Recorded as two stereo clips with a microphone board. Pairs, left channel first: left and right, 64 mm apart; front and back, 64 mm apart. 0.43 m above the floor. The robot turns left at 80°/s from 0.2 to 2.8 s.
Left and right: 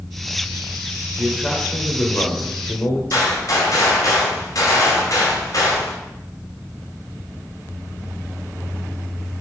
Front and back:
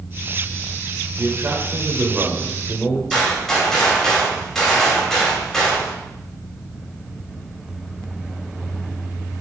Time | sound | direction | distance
1.2 | a man speaking | 160° right | 1.3 m
3.1 | a gunshot | 85° left | 2.5 m